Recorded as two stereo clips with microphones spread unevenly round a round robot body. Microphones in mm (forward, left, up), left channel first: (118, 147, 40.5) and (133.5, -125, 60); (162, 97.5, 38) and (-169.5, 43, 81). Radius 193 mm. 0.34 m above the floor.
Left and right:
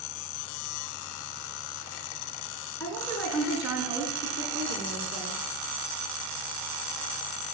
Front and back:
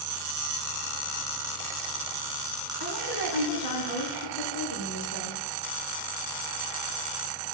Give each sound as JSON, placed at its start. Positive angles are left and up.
{"t": 2.8, "sound": "a woman speaking", "azimuth_deg": 10, "distance_m": 5.0}